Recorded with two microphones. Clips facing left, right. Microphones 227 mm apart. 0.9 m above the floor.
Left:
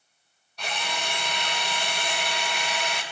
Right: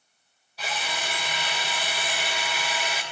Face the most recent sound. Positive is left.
turn(degrees=-5)  # may be behind; listen again after turning